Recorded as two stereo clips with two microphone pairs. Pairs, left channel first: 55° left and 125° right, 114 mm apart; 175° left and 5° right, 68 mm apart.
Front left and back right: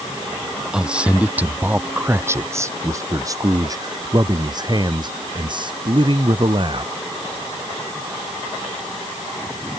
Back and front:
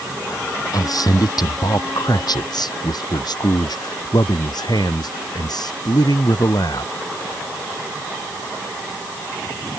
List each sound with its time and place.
0.7 s a man speaking: 150° left; by 6.9 s 170° right